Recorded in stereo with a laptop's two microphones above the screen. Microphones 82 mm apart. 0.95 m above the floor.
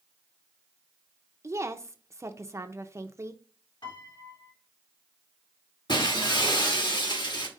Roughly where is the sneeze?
No sneeze in this recording.